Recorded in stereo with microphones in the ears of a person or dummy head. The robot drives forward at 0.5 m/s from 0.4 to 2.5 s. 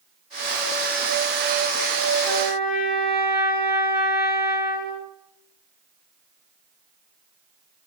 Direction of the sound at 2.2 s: 15° right (ahead or behind).